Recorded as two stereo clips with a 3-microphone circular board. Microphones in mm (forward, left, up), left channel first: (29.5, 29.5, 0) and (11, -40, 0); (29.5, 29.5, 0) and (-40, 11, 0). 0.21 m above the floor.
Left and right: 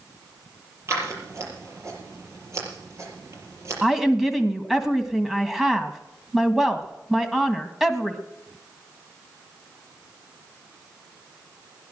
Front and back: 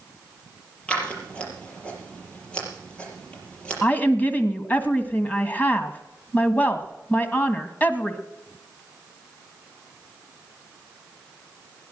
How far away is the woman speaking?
About 1.6 m.